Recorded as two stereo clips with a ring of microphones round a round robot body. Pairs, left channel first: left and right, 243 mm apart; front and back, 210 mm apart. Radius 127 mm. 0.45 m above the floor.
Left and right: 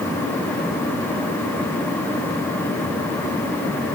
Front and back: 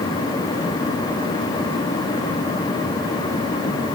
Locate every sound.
Only background noise.